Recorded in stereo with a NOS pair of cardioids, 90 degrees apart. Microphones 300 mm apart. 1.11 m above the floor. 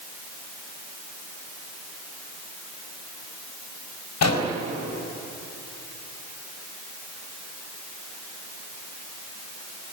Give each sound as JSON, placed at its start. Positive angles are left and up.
{"t": 4.2, "sound": "an explosion", "azimuth_deg": 65, "distance_m": 3.5}